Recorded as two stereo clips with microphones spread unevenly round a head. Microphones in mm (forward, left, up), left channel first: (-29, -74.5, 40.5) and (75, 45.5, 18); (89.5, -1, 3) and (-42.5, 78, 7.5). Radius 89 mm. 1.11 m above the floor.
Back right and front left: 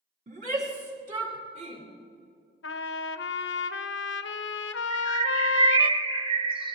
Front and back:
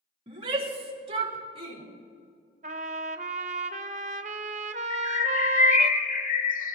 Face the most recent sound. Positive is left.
turn(degrees=-10)